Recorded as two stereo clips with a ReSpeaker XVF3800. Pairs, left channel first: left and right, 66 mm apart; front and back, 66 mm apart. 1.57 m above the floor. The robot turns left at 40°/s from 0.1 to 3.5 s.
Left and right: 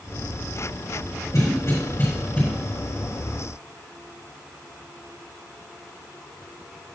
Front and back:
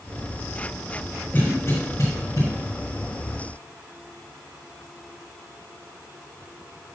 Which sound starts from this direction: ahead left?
A cough, at 1.3 s.